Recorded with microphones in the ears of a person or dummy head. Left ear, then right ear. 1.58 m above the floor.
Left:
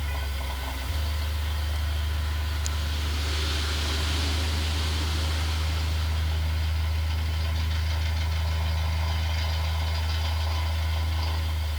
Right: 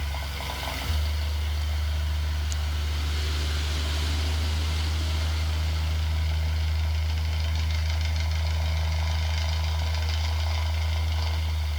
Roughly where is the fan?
Right.